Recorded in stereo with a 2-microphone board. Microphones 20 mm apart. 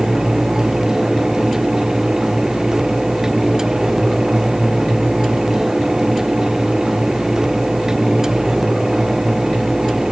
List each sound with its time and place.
Only background noise.